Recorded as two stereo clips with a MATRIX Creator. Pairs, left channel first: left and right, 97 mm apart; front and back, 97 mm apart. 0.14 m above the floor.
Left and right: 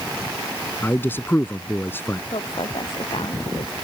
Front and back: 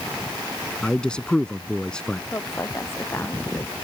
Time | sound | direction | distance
0.8 | a man speaking | 70° left | ?
2.3 | a woman speaking | 65° left | ?